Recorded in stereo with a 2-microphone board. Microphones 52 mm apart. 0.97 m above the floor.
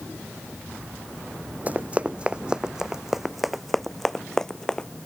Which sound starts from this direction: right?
Running footsteps, at 1.7 s.